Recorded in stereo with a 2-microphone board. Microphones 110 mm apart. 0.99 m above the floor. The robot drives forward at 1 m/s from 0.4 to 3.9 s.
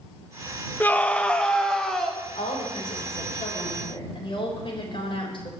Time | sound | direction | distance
0.8 | a scream | 15° left (ahead or behind) | 0.6 m
2.4 | a woman speaking | 70° left (ahead or behind) | 3.5 m